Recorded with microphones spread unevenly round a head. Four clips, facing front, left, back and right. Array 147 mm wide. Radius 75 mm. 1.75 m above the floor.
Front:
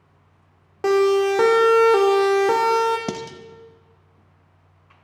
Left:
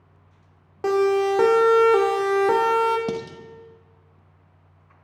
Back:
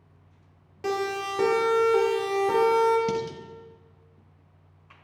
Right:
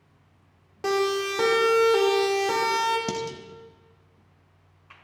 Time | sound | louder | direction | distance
0.8 | a siren | left 6 dB, front 12 dB | 20° left | 5 m
3.1 | dishes clattering | left 1 dB, back 1 dB | 10° left | 1.8 m